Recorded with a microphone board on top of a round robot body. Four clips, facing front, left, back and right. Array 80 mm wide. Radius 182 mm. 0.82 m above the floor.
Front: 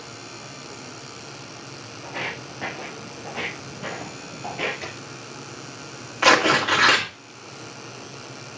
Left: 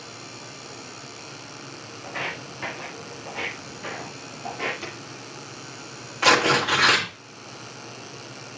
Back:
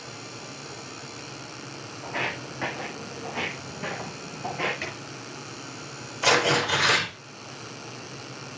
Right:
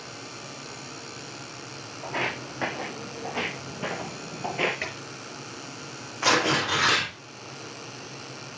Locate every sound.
2.0 s footsteps: 95° right, 3 m; by 4.7 s 80° right, 1.5 m
4.8 s a drawer: 95° right, 5 m
6.2 s tearing paper: 15° left, 2.5 m